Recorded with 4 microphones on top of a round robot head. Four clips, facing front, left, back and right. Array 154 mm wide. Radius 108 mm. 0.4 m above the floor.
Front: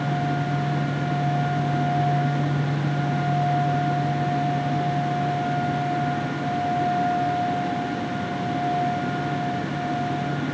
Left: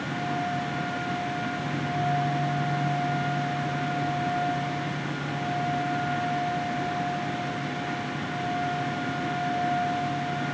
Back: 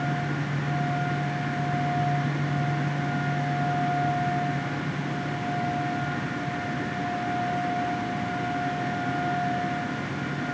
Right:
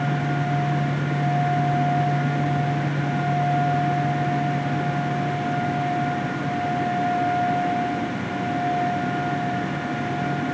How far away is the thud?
No thud in this recording.